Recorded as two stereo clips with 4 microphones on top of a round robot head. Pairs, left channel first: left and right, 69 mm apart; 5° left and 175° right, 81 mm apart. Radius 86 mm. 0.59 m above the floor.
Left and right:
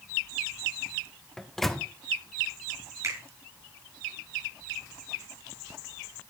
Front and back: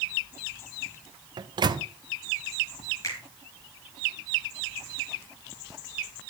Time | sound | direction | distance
1.4 | a microwave | 175° left | 0.8 m
3.0 | a finger snap | 45° right | 8 m